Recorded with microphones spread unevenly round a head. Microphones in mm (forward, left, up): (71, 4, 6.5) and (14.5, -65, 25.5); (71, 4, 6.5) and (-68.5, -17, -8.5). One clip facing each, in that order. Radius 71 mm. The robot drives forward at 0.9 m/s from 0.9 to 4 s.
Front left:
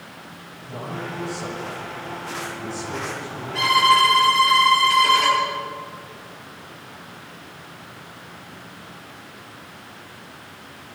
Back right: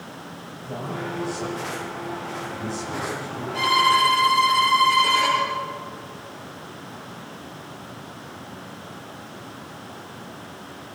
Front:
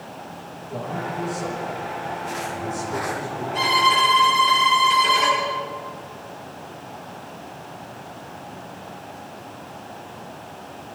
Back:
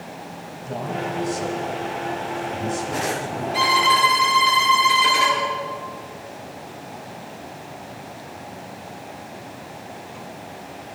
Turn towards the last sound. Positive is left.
turn(degrees=165)